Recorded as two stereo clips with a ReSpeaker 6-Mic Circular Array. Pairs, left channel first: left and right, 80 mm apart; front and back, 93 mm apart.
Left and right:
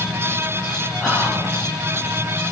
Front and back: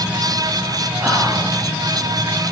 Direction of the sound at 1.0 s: 165° right.